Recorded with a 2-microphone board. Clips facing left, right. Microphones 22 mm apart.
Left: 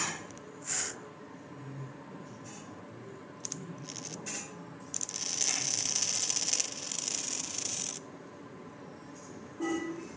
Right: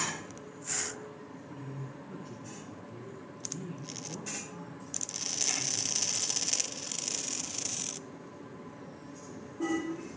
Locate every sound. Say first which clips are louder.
1.5 s a man speaking: right 3 dB; 50° right (ahead or behind), 2 m